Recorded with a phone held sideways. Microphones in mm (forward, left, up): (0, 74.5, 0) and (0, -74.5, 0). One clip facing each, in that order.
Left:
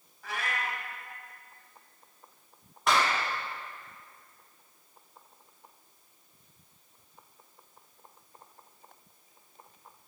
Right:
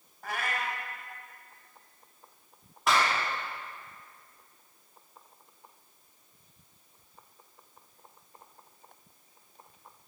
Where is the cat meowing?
50° right (ahead or behind), 1.3 m.